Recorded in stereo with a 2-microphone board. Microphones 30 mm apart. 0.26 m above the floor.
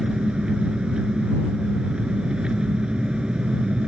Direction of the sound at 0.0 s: 30° right (ahead or behind).